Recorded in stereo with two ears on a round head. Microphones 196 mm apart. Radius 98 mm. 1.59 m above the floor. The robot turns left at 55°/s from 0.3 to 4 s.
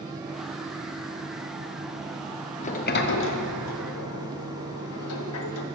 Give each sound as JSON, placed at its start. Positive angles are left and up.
{"t": 2.6, "sound": "a sliding door", "side_deg": 30, "distance_m": 0.9}